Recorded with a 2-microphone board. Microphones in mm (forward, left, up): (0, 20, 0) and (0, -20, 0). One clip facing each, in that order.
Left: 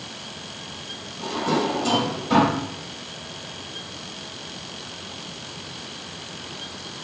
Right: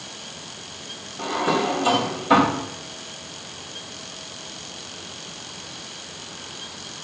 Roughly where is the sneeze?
No sneeze in this recording.